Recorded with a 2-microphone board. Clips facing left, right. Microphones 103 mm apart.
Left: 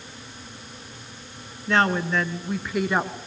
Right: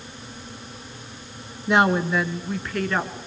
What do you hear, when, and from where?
1.7 s a woman speaking: 20° right (ahead or behind), 1.3 m; by 3.2 s 20° left (ahead or behind), 1.3 m